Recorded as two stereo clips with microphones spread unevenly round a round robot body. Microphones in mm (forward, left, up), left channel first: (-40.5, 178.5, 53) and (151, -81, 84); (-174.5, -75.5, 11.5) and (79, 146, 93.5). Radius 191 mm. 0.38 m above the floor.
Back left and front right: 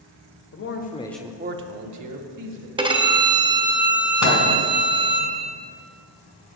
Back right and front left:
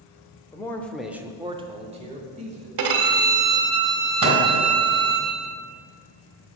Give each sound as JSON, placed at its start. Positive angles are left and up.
{"t": 0.5, "sound": "a man speaking", "azimuth_deg": 155, "distance_m": 1.2}
{"t": 2.8, "sound": "a violin", "azimuth_deg": 25, "distance_m": 1.5}
{"t": 4.2, "sound": "a microwave", "azimuth_deg": 95, "distance_m": 3.0}